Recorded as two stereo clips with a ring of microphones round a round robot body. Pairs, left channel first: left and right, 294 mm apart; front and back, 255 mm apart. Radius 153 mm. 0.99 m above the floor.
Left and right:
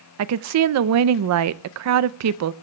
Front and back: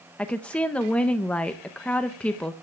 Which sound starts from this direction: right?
A woman speaking, at 0.2 s.